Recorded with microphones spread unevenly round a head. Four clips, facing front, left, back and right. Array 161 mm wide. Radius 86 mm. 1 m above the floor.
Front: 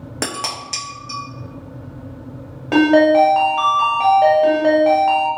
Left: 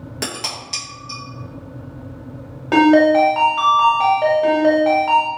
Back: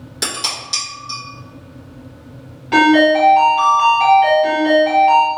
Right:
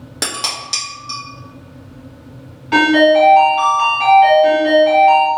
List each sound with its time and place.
0.2 s dishes clattering: 30° right, 1.1 m
2.7 s a ringtone: 40° left, 1.3 m